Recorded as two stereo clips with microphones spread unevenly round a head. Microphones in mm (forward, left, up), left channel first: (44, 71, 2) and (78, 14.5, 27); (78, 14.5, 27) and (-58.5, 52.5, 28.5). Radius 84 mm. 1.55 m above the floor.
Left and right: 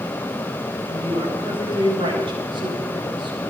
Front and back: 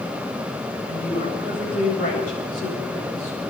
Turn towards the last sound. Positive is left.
turn(degrees=-75)